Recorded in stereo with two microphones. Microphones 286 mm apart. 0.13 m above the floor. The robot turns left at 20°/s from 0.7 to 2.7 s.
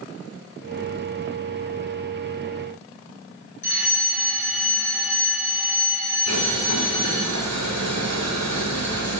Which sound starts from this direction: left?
A fire alarm, at 3.6 s.